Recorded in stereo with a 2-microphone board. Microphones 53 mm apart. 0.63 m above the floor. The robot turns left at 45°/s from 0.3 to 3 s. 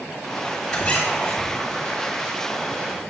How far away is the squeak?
About 2.0 m.